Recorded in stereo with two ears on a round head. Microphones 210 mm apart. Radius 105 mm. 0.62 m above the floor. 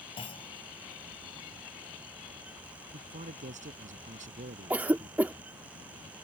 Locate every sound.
0.2 s a clunk: 25° left (ahead or behind)
2.9 s a man speaking: 30° right (ahead or behind)
4.7 s a cough: 5° right (ahead or behind)